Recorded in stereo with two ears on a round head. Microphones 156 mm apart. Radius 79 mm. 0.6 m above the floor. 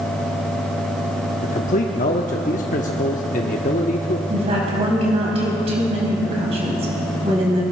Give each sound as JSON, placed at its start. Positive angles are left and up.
{"t": 1.4, "sound": "a man speaking", "side_deg": 45, "distance_m": 0.8}
{"t": 4.3, "sound": "a woman speaking", "side_deg": -35, "distance_m": 4.0}